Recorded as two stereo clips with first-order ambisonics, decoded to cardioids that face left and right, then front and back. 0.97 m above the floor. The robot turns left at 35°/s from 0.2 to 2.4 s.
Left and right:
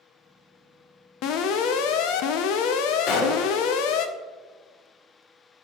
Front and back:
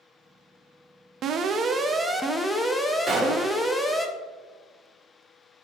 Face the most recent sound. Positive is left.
turn(degrees=105)